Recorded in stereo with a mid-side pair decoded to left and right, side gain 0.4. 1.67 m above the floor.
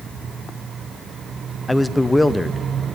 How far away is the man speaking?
About 0.6 m.